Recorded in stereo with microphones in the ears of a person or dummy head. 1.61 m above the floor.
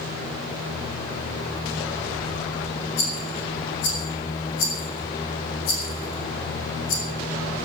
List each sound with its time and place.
3.0 s a rattle: 70° left (ahead or behind), 4.5 m